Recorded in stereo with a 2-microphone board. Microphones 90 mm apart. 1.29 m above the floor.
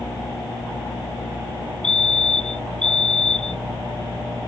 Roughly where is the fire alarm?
Right.